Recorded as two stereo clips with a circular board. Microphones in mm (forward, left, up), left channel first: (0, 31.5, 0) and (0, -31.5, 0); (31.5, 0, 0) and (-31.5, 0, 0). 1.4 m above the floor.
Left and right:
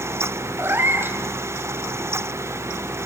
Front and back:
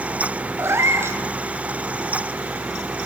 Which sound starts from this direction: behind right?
A cat meowing, at 0.6 s.